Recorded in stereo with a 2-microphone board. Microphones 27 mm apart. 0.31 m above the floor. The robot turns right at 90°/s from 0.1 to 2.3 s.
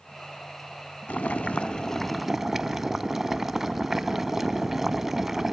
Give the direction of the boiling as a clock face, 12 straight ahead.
9 o'clock.